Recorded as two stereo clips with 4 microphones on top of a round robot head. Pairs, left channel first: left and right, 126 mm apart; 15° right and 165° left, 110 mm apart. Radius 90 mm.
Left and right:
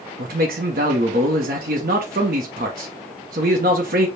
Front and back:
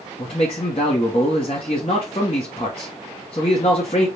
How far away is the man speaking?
About 0.8 m.